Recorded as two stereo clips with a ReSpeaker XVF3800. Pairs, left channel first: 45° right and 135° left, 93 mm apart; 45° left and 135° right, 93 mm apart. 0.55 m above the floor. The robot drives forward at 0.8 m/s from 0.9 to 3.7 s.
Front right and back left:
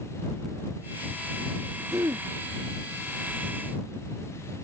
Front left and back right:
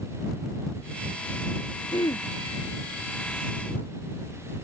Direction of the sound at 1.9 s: 80° left.